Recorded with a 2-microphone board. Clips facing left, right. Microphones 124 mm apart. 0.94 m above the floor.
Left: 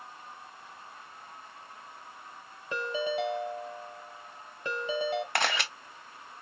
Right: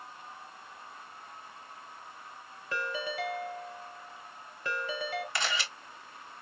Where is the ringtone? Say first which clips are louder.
Left 4 dB; 20° left (ahead or behind), 1.2 m.